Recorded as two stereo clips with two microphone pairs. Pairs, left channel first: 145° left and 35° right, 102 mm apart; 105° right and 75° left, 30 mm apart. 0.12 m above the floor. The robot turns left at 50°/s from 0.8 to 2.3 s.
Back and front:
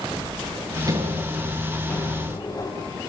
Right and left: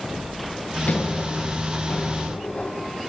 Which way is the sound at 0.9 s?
85° right.